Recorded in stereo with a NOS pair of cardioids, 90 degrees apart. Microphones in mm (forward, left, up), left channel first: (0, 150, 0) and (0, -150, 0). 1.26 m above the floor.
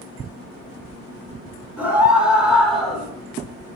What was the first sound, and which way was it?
A scream, 5° right.